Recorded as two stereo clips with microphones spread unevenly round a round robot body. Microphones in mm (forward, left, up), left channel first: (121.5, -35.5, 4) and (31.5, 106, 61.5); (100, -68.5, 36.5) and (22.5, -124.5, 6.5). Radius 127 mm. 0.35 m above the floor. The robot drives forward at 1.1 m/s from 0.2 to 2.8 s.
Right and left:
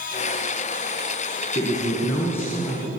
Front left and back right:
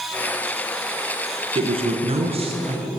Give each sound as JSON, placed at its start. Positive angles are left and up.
{"t": 1.6, "sound": "a man speaking", "azimuth_deg": -125, "distance_m": 5.0}